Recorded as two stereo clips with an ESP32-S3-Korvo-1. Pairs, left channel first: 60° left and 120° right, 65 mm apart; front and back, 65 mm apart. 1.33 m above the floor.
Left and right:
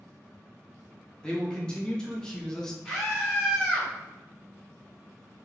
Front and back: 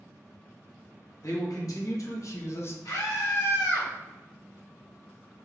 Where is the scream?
20° right, 1.7 m.